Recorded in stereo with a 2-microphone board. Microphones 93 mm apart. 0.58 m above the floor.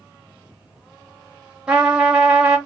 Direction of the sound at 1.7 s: 5° right (ahead or behind).